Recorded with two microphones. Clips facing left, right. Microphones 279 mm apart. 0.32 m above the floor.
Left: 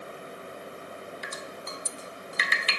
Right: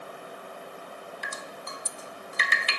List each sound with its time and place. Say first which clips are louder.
1.2 s dripping: left 1 dB; 55° right (ahead or behind), 0.6 m